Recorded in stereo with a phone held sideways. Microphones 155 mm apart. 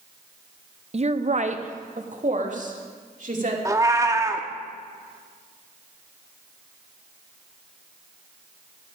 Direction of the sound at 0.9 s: 45° right (ahead or behind).